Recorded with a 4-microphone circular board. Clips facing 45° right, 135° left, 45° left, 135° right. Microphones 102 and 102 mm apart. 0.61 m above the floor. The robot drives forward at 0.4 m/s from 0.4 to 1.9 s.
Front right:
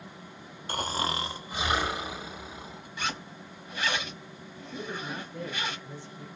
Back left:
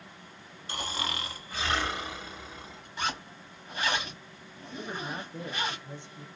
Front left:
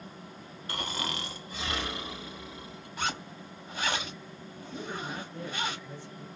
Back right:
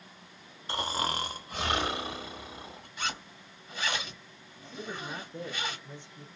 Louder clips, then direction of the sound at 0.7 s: Front right 5 dB, back right 4 dB; 75° right.